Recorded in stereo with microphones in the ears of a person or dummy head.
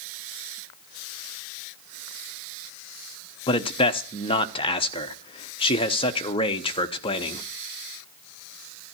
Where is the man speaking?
20° left (ahead or behind), 0.9 m.